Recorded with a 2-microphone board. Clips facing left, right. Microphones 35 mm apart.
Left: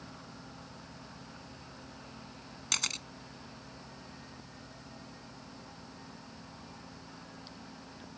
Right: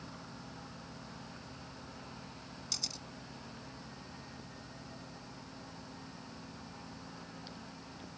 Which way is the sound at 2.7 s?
60° left (ahead or behind).